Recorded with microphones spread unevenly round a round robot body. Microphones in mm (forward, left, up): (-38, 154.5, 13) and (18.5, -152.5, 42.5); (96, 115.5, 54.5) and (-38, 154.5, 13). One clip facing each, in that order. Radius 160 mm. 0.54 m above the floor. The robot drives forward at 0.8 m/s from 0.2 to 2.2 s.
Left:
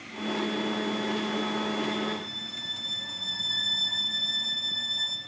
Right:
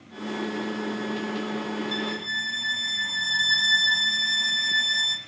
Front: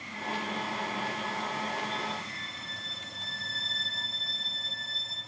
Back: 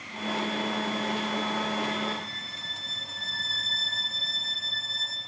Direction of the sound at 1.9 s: 120° right.